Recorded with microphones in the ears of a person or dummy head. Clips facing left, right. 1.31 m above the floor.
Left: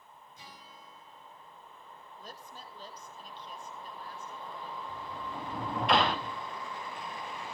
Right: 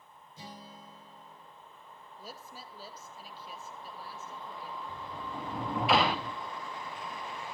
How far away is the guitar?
About 5.5 m.